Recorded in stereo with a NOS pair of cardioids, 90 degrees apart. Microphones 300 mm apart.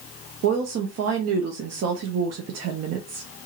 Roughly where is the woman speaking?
Ahead right.